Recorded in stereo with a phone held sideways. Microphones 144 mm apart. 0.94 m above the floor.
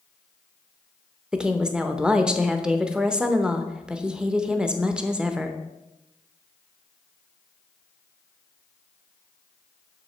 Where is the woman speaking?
5° right (ahead or behind), 0.8 m.